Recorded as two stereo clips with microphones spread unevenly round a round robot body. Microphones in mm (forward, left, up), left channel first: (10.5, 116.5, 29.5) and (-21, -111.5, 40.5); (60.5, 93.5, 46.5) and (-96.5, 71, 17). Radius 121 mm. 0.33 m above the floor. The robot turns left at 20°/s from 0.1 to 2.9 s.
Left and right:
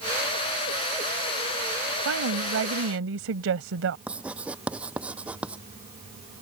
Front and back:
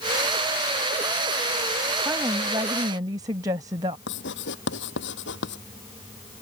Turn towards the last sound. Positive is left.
turn(degrees=-15)